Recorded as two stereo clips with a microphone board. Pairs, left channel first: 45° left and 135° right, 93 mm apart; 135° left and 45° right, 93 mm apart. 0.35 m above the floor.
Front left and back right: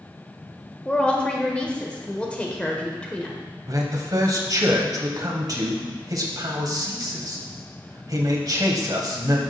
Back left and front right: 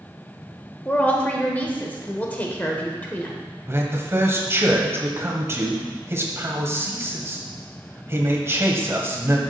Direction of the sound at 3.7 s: 100° right.